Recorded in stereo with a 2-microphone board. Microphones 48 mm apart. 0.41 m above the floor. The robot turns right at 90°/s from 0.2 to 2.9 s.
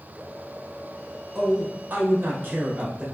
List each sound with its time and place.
1.4 s a man speaking: 170° right, 1.1 m; by 3.0 s 30° right, 1.1 m